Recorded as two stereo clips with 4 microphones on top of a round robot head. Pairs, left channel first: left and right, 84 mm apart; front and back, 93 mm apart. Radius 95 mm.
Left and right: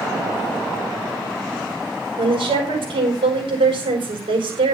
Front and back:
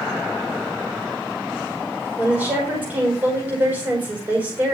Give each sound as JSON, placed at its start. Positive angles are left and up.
{"t": 2.2, "sound": "a woman speaking", "azimuth_deg": -105, "distance_m": 4.5}